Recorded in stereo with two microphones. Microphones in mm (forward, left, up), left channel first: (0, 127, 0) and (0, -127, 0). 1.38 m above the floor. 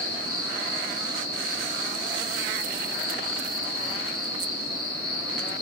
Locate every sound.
0.0 s an insect: 15° right (ahead or behind), 5.5 m